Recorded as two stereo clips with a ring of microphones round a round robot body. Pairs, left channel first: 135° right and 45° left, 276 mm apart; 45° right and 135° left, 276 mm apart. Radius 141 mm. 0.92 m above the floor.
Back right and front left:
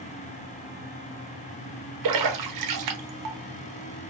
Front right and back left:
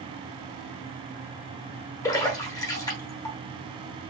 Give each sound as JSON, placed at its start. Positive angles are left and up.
{"t": 2.0, "sound": "a splash", "azimuth_deg": 35, "distance_m": 0.8}